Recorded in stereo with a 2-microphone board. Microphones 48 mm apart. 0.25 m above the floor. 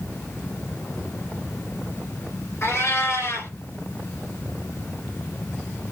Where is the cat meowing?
65° left (ahead or behind), 2 m.